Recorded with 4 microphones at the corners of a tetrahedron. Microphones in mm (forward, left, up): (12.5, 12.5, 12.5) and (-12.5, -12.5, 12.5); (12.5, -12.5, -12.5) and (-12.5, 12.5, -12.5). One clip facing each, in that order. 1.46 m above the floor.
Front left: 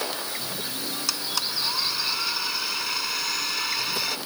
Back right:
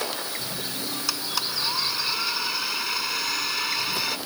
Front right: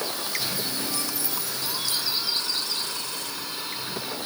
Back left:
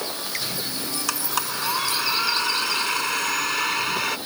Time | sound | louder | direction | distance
1.1 | a blender | even, back left 6 dB | 140° left | ?